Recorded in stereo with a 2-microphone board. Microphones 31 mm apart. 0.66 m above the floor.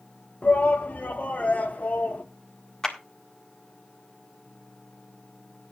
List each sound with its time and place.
0.4 s a shout: 50° left (ahead or behind), 1.4 m
2.8 s a clap: 15° left (ahead or behind), 1.6 m